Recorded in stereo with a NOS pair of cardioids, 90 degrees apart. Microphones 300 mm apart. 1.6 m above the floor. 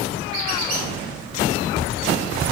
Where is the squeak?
45° right, 1.5 m.